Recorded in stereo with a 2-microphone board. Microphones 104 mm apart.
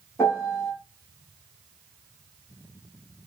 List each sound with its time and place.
0.2 s a piano: 25° left (ahead or behind), 4.5 m